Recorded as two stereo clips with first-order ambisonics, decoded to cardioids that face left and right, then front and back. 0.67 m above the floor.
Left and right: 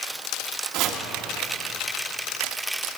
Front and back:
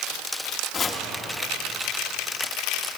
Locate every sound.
0.7 s chopping: 65° right, 1.0 m